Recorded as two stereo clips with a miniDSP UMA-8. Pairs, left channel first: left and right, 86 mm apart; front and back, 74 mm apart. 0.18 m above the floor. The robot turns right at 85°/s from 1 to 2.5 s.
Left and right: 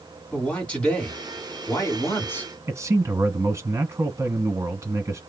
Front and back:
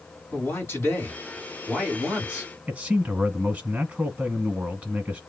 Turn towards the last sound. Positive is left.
turn(degrees=-125)